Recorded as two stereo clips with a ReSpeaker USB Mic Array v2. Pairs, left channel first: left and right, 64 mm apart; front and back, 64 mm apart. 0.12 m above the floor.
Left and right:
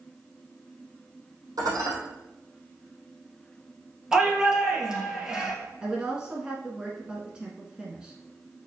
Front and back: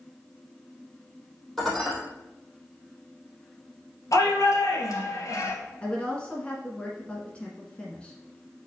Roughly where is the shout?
Ahead.